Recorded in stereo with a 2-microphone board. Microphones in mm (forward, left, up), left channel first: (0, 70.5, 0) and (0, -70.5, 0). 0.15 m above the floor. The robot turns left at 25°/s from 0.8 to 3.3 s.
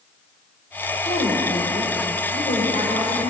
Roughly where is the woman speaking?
Left.